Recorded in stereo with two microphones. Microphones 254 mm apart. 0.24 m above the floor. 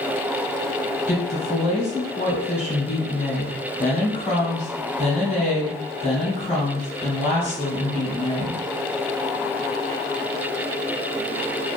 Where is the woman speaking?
30° left (ahead or behind), 1.1 m.